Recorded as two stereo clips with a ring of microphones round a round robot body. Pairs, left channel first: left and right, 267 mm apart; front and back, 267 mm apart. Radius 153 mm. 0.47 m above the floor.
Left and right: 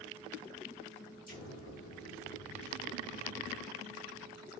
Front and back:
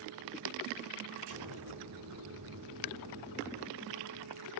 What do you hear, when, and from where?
1.3 s an explosion: 150° left, 5 m